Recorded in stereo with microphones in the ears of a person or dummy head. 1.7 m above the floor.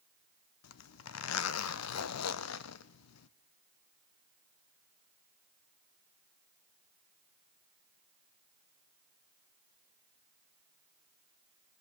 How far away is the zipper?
About 0.7 m.